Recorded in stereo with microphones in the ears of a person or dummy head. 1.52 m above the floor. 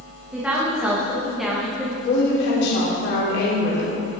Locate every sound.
0.3 s a woman speaking: 10° right (ahead or behind), 2.0 m; by 1.9 s centre (ahead or behind), 1.2 m
2.0 s a woman speaking: 70° left (ahead or behind), 3.5 m